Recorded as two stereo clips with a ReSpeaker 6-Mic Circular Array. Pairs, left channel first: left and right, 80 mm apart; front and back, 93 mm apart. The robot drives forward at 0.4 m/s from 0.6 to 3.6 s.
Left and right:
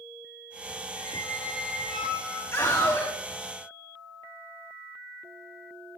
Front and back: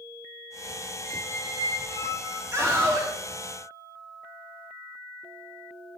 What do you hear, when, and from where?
1.0 s a squeak: 170° left, 3 m
2.5 s a scream: 135° left, 2 m; by 3.1 s 140° left, 2.5 m